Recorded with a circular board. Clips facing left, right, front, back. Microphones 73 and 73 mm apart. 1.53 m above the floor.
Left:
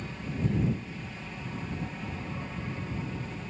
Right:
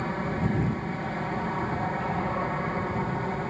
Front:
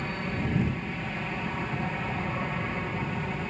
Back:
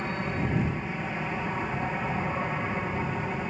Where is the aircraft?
105° right.